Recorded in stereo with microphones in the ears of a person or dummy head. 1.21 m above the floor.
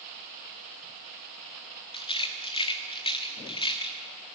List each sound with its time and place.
1.9 s a rattle: 30° left (ahead or behind), 1.4 m